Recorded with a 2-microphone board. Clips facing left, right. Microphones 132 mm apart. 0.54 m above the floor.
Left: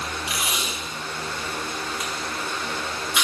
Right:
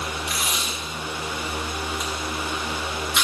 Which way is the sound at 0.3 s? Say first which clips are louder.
Even; 10° left (ahead or behind).